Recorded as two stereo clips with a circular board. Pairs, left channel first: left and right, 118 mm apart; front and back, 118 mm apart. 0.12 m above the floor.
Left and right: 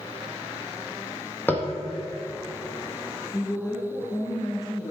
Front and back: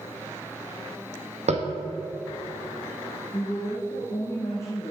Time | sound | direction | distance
1.5 | tapping | 165° left | 1.3 m
3.3 | a woman speaking | 55° left | 1.6 m